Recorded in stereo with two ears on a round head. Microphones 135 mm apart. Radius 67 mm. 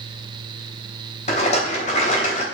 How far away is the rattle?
About 3 m.